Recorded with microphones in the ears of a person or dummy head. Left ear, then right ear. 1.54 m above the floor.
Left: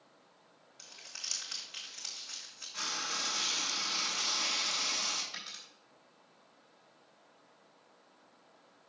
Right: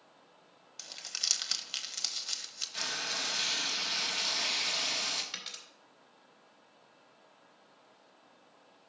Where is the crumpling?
65° right (ahead or behind), 1.0 m.